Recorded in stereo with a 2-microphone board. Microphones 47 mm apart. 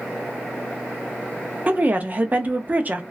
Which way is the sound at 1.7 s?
35° right (ahead or behind).